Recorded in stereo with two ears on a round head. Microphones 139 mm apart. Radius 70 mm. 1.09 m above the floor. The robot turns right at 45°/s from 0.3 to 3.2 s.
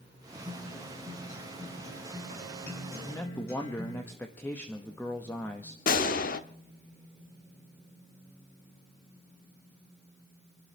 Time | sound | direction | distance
0.4 | a guitar | 15° right | 7.5 m
3.0 | a man speaking | 20° left (ahead or behind) | 1.2 m
5.9 | a gunshot | 60° left (ahead or behind) | 1.0 m